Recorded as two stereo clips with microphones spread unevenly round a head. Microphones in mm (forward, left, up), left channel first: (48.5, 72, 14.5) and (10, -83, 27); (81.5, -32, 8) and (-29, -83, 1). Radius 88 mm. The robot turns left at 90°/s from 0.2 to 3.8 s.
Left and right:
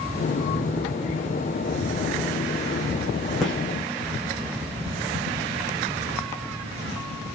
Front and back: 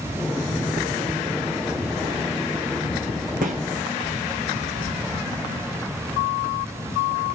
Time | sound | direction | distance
3.4 | a gunshot | 165° left | 2 m